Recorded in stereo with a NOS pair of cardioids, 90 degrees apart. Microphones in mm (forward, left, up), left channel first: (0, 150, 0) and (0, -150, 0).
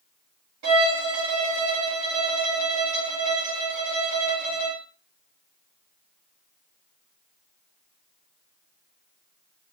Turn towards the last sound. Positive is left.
turn(degrees=-65)